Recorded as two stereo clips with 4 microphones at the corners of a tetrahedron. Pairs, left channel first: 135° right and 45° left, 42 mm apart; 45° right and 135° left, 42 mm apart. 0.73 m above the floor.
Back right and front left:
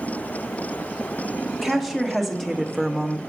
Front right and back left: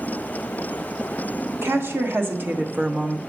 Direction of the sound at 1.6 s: 135° left.